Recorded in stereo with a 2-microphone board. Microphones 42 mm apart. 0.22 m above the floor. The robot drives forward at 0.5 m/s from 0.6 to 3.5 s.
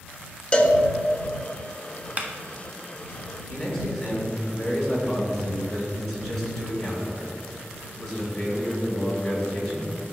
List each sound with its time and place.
0.5 s a cowbell: 25° left (ahead or behind), 0.8 m
2.2 s a clap: 35° right (ahead or behind), 0.9 m
3.5 s a man speaking: 10° left (ahead or behind), 3 m